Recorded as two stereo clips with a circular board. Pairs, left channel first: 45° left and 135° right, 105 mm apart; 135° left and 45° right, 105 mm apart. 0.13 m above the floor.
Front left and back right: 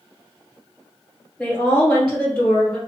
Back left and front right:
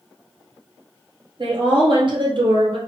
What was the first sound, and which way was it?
A woman speaking, 35° right.